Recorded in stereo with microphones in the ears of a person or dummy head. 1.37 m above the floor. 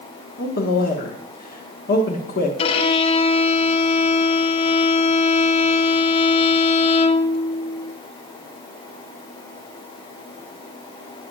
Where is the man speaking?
55° left (ahead or behind), 1.4 m.